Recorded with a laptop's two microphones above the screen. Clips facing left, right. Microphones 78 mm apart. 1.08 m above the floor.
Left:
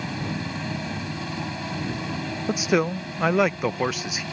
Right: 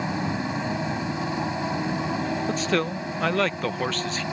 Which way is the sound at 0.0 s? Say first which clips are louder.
Right 3 dB; 25° right (ahead or behind).